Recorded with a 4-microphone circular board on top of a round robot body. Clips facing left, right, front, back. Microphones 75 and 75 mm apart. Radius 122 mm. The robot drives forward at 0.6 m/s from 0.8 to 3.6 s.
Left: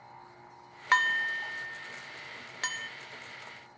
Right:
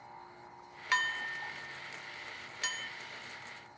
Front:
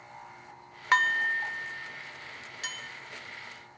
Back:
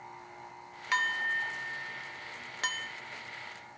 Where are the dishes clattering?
45° left, 0.7 m; by 2.9 s 145° left, 0.8 m.